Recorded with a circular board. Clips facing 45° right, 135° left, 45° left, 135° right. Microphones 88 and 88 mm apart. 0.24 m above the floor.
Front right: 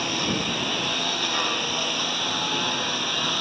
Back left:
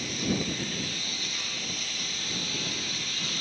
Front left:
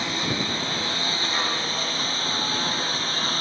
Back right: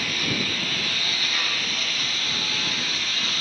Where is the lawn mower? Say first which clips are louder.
Front right 3 dB, front left 1 dB; 20° right; by 3.4 s 10° right.